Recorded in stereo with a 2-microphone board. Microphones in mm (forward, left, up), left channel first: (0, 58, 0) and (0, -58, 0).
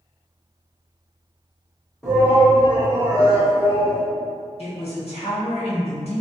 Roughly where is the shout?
Centre.